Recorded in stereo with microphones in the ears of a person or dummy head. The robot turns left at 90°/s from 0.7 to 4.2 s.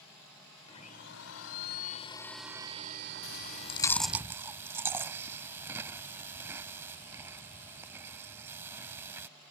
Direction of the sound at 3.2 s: 70° left (ahead or behind).